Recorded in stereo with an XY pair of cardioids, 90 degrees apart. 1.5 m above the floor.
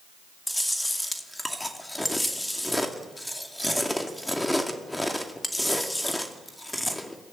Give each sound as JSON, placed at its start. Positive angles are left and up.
{"t": 0.5, "sound": "chewing", "azimuth_deg": 10, "distance_m": 2.5}